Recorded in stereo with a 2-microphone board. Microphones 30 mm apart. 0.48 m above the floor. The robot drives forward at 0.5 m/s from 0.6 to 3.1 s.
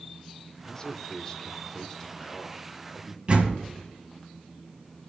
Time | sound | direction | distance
0.7 | a man speaking | 20° left (ahead or behind) | 0.9 m
3.3 | a door slam | 40° right (ahead or behind) | 2.5 m